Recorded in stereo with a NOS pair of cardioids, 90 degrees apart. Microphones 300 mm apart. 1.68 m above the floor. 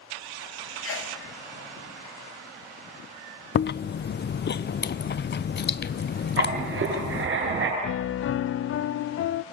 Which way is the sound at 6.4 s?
45° right.